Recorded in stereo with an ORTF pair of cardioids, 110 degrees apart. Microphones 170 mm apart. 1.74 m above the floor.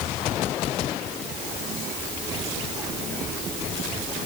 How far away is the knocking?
No knocking in this recording.